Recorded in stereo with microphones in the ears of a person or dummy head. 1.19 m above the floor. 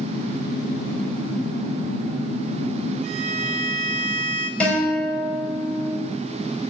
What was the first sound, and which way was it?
A violin, 45° right (ahead or behind).